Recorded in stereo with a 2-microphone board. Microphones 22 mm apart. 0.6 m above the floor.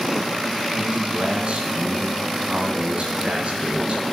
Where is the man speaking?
55° right (ahead or behind), 6 m.